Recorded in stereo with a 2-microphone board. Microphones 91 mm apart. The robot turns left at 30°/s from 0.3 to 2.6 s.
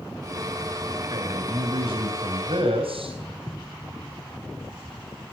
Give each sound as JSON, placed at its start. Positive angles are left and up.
{"t": 1.1, "sound": "a man speaking", "azimuth_deg": -50, "distance_m": 4.0}
{"t": 3.3, "sound": "footsteps", "side_deg": 15, "distance_m": 5.5}